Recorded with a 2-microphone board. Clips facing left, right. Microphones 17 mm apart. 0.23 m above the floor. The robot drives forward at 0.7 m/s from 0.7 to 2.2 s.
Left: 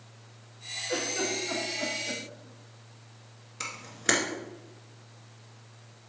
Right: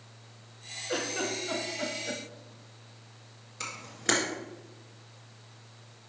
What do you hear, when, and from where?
0.9 s a giggle: 10° right (ahead or behind), 1.3 m; by 2.2 s 20° right (ahead or behind), 0.6 m
3.6 s a camera shutter: 10° left (ahead or behind), 1.6 m